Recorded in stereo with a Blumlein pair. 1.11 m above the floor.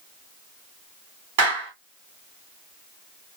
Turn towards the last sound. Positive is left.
turn(degrees=-55)